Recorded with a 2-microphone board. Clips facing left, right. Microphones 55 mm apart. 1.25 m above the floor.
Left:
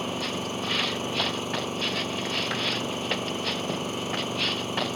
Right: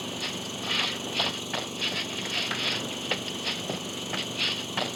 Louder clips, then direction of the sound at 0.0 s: Left 5 dB; 40° left (ahead or behind).